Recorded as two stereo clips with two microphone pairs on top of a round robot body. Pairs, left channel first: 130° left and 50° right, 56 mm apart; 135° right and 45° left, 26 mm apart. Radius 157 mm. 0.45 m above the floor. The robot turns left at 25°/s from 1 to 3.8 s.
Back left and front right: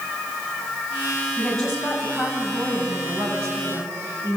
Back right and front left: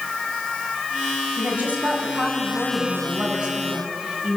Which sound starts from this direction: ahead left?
A woman speaking, at 1.4 s.